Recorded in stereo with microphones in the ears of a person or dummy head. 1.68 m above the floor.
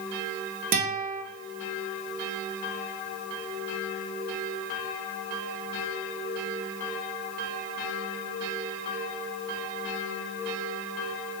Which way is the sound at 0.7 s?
50° right (ahead or behind).